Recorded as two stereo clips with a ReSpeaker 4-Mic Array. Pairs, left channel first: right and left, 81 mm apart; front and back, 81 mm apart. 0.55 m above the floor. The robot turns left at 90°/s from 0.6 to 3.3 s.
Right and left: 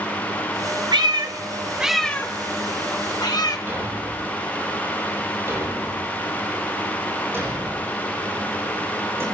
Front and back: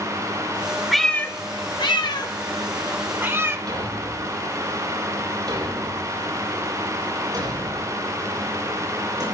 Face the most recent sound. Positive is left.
turn(degrees=150)